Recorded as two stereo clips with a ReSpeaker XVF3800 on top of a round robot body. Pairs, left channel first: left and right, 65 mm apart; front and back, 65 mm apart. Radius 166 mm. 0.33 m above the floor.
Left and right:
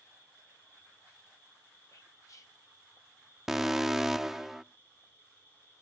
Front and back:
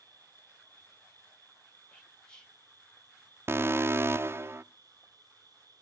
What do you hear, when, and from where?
0.0 s an insect: 150° left, 5.5 m
1.9 s whispering: 75° left, 2.5 m
3.5 s an alarm: 170° right, 0.6 m